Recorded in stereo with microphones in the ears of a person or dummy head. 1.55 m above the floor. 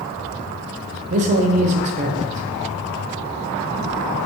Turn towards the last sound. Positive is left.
turn(degrees=-40)  # may be behind; listen again after turning